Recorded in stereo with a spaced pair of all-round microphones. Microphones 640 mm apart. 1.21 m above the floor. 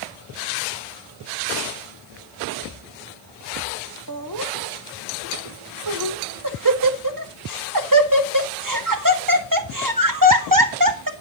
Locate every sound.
4.1 s laughter: 30° right (ahead or behind), 2.0 m